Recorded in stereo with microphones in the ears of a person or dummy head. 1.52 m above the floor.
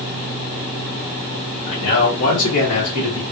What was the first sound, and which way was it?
A man speaking, 80° left.